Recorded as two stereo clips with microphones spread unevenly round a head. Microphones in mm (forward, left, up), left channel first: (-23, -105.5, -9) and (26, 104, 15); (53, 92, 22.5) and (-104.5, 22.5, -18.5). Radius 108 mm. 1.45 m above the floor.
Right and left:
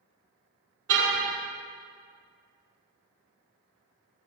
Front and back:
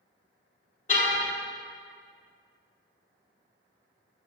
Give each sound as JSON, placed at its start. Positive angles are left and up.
{"t": 0.9, "sound": "a car horn", "azimuth_deg": 65, "distance_m": 4.0}